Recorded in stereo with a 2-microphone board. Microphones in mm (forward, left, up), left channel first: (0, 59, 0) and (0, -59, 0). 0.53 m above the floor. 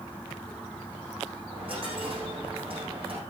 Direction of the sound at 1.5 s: 55° right (ahead or behind).